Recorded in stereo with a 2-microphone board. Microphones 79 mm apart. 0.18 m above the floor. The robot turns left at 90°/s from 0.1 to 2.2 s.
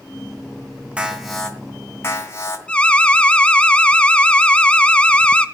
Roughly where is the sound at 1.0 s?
Behind right.